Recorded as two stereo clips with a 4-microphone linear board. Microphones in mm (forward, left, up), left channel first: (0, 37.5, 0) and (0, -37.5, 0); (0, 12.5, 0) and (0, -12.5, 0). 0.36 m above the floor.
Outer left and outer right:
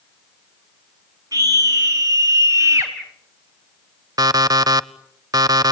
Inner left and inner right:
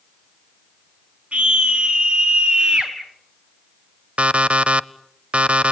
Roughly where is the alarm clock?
Right.